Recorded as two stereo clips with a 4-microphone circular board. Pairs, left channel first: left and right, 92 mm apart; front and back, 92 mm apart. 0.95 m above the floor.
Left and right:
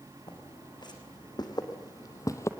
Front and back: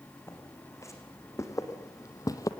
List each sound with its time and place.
0.3 s footsteps: 60° left, 4 m; by 2.5 s 40° left, 1.5 m